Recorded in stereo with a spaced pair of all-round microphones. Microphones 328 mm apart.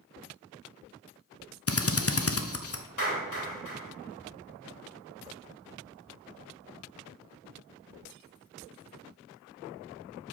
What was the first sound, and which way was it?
A drill, 45° left (ahead or behind).